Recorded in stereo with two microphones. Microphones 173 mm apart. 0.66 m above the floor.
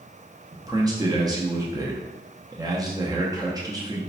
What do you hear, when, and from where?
0.5 s a man speaking: 20° right (ahead or behind), 0.5 m